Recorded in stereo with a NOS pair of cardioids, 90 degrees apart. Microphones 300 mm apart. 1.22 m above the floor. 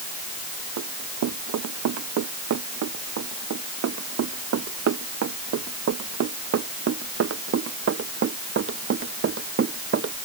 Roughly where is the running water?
No running water in this recording.